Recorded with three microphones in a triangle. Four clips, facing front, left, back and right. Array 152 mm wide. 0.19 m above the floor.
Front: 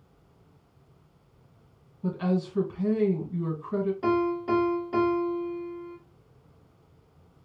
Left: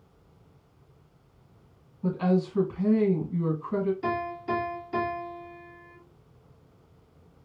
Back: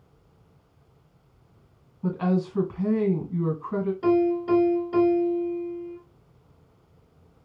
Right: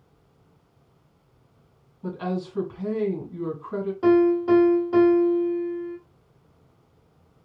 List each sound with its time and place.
2.0 s a woman speaking: 175° right, 1.7 m
4.0 s a piano: 90° right, 1.6 m